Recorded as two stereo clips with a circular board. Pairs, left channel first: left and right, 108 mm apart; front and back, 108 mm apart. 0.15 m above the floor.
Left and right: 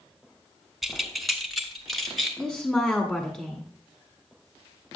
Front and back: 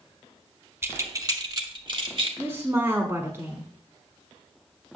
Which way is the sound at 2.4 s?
160° left.